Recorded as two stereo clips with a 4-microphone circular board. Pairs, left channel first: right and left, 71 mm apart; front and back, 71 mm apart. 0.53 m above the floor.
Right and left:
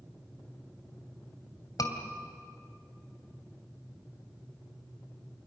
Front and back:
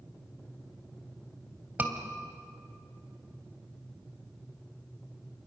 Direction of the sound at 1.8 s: 115° right.